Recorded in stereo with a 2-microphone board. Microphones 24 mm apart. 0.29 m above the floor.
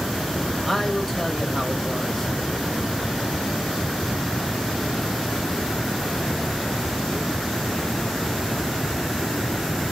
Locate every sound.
0.7 s a man speaking: 10° left (ahead or behind), 0.9 m